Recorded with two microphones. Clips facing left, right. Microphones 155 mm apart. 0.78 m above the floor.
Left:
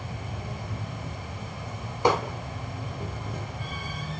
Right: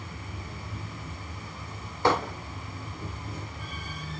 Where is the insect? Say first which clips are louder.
Left 4 dB; 65° left (ahead or behind), 1.4 m.